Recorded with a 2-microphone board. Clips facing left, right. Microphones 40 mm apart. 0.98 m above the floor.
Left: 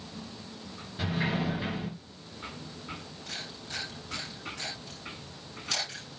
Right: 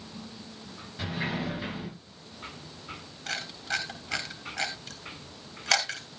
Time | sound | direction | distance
1.0 | a sliding door | 10° left (ahead or behind) | 7.5 m
3.3 | a camera shutter | 80° right | 3 m